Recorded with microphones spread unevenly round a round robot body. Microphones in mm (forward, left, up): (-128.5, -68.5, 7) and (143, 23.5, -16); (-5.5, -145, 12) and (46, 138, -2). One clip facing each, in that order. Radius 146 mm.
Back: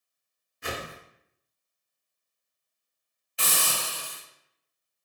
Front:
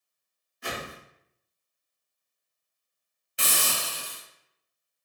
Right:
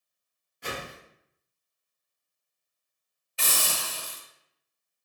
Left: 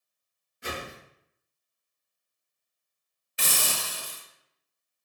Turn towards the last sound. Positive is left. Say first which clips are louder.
# even, left 1 dB
turn(degrees=45)